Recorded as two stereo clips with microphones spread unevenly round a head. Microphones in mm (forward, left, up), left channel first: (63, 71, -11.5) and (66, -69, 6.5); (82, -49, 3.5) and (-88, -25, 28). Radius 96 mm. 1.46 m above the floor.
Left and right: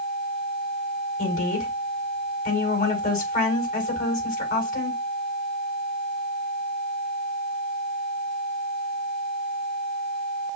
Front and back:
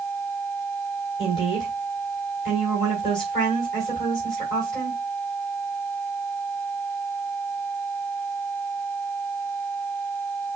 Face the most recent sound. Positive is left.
turn(degrees=60)